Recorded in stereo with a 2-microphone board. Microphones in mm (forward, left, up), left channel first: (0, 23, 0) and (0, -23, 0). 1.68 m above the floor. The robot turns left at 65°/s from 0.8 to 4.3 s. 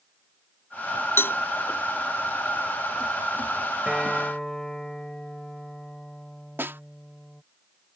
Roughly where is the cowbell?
Left.